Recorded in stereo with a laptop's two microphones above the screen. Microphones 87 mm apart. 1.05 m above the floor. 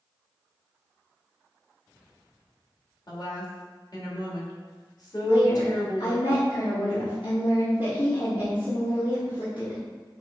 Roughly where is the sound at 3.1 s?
Left.